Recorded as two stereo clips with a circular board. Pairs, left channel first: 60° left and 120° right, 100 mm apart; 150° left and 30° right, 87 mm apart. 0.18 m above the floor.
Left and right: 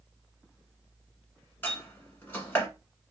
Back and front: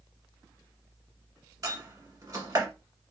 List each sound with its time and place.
1.6 s a door slam: 5° right, 1.2 m